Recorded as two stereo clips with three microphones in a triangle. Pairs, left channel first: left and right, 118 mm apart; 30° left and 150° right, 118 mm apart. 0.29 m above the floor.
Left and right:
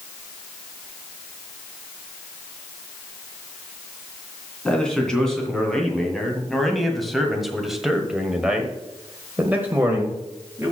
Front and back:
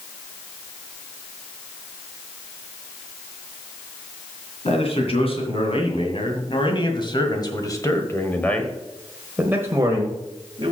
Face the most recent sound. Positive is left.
turn(degrees=-155)